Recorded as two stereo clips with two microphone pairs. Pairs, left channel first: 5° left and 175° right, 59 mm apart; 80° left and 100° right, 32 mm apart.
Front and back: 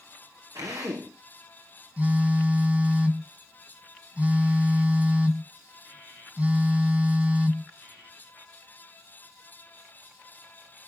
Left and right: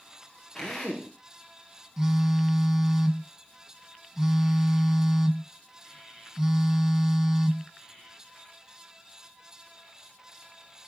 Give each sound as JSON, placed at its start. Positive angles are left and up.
{"t": 0.6, "sound": "a drill", "azimuth_deg": 165, "distance_m": 7.0}
{"t": 2.0, "sound": "a phone buzzing", "azimuth_deg": -160, "distance_m": 1.5}